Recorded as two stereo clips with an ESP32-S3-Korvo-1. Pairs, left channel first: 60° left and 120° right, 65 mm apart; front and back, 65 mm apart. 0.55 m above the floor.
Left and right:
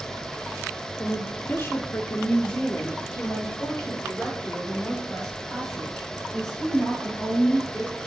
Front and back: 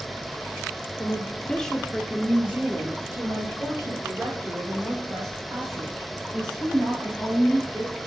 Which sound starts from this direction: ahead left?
A woman speaking, at 1.0 s.